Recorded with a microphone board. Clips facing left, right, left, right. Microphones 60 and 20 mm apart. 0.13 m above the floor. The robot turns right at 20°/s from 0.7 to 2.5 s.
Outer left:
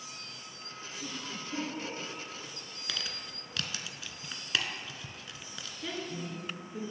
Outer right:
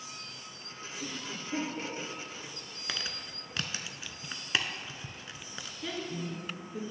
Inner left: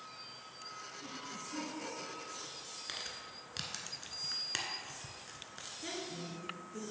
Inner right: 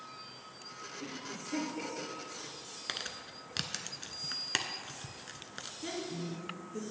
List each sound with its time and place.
1.0 s a cough: 55° right (ahead or behind), 2.0 m; by 3.6 s 50° right (ahead or behind), 2.0 m
2.9 s crumpling: 30° right (ahead or behind), 0.5 m
5.8 s a woman speaking: centre (ahead or behind), 1.7 m